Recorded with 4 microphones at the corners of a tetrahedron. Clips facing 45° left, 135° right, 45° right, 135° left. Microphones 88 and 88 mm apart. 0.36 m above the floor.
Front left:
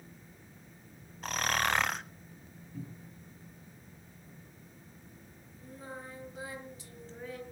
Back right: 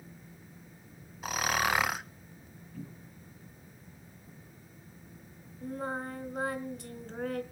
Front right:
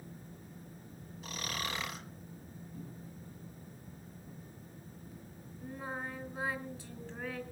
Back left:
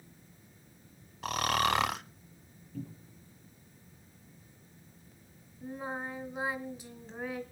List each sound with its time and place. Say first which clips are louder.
1.2 s snoring: back right 1 dB, back left 12 dB; 140° left, 0.6 m
2.7 s a cupboard door: even, back left 6 dB; 115° left, 7 m
5.6 s singing: back right 10 dB, back left 3 dB; 155° right, 2 m